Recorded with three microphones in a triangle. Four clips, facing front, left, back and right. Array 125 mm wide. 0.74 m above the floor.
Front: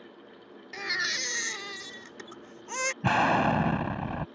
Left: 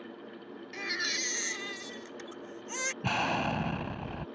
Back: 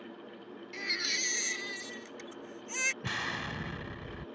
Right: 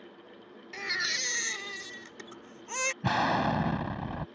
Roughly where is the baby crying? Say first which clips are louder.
Right 2 dB, front 6 dB; ahead right.